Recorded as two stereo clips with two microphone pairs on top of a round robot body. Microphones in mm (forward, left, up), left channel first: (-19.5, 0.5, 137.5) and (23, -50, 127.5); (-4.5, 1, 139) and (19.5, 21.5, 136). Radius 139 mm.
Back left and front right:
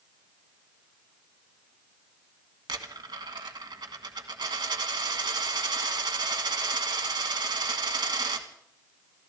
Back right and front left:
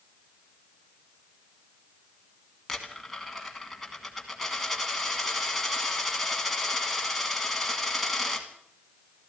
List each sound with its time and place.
2.7 s a dropped coin: 60° right, 1.5 m